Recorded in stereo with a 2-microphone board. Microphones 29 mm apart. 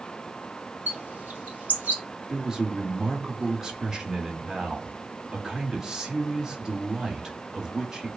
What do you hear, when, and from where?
0.9 s a bird: 70° right (ahead or behind), 1.5 m
2.3 s a man speaking: 20° right (ahead or behind), 1.3 m